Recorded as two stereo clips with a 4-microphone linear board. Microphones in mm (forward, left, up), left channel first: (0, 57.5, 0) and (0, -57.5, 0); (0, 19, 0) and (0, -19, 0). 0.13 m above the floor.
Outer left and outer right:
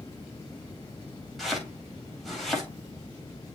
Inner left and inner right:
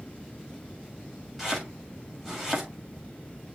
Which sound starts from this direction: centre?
Chopping, at 1.4 s.